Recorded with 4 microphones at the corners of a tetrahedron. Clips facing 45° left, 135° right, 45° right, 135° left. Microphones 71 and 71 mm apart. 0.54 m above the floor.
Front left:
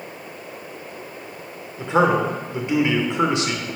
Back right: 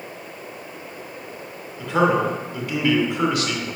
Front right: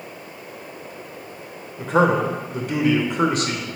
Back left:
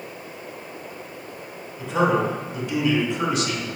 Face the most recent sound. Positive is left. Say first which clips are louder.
# front left 1 dB, front right 3 dB
turn(degrees=-15)